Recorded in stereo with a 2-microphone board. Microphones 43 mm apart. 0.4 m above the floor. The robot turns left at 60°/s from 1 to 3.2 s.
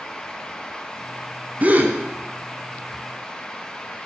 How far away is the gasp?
About 1.2 m.